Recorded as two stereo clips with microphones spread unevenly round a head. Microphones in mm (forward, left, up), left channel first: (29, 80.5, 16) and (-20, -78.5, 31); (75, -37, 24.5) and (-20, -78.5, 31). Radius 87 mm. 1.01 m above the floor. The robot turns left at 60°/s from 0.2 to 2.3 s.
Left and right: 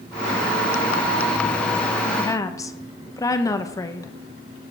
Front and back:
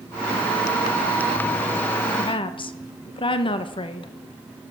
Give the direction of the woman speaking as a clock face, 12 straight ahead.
11 o'clock.